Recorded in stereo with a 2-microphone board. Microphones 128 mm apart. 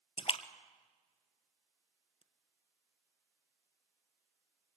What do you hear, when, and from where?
0.2 s a splash: 50° left (ahead or behind), 1.0 m